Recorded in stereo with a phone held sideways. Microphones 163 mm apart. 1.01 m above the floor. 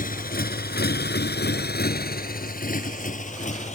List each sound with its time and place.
0.0 s a motorcycle: 60° left (ahead or behind); by 3.8 s 45° left (ahead or behind)